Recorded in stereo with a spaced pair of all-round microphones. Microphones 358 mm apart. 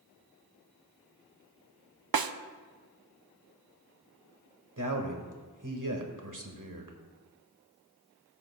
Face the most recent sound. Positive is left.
turn(degrees=-55)  # may be behind; listen again after turning